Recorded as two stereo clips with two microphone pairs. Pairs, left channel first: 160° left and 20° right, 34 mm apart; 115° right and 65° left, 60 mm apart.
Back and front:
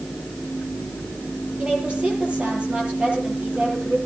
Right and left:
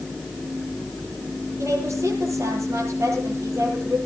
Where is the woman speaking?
35° left, 9 m.